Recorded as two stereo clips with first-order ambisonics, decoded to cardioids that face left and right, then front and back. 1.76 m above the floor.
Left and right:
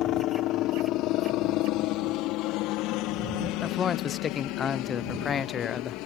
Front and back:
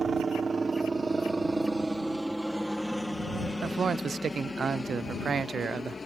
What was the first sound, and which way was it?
A helicopter, 115° left.